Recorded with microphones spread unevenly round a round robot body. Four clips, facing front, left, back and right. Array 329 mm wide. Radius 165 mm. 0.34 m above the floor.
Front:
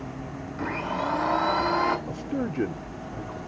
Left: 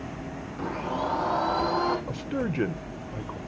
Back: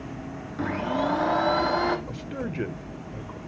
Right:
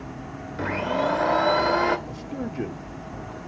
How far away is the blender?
About 1.1 m.